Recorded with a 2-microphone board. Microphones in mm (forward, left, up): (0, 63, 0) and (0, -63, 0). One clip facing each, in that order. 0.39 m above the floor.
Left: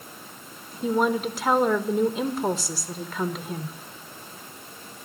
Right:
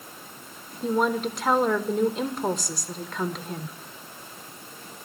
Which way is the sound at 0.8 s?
Centre (ahead or behind).